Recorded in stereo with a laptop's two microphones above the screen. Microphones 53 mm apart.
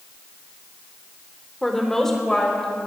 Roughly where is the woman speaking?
Centre.